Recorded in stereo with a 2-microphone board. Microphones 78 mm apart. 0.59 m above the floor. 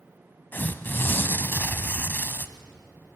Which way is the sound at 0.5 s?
30° left (ahead or behind).